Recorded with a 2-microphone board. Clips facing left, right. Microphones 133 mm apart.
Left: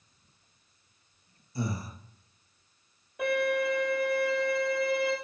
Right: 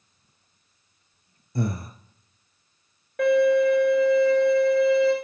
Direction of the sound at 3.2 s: 75° right (ahead or behind).